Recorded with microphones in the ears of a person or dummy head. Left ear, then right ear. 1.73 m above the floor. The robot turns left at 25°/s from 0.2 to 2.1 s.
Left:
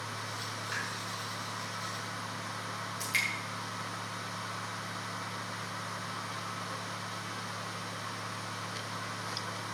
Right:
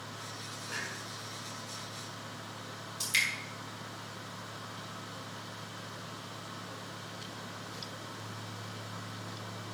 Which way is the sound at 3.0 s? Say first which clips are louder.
Right 2 dB; 5° right (ahead or behind).